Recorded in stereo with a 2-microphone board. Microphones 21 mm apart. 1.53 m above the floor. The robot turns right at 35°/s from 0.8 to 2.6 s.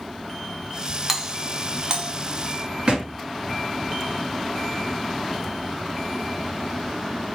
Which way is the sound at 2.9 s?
45° right (ahead or behind).